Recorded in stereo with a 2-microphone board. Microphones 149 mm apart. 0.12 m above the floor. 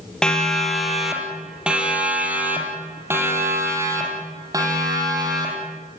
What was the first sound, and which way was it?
A siren, 5° left (ahead or behind).